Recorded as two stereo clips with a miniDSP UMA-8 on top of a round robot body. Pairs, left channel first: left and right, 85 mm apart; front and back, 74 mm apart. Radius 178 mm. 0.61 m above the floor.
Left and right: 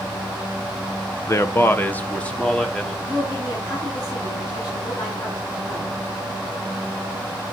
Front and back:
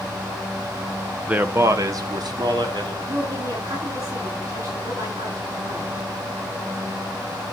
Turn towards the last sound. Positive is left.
turn(degrees=140)